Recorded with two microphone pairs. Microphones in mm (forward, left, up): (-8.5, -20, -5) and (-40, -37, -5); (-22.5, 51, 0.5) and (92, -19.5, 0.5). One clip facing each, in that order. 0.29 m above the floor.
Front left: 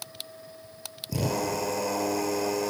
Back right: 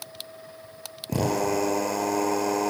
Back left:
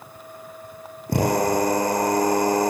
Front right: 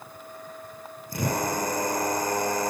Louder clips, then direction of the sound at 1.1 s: Back right 4 dB, back left 7 dB; 170° left.